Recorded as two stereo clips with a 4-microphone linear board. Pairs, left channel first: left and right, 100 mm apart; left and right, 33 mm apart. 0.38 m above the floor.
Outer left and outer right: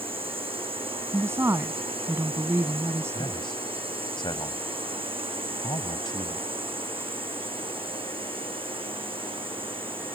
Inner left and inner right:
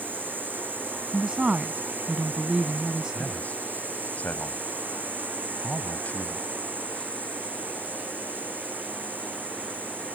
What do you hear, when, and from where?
0.0 s a drone: 70° right (ahead or behind); by 10.2 s 65° right (ahead or behind)
1.1 s a woman speaking: 25° right (ahead or behind)
3.1 s a man speaking: 55° left (ahead or behind)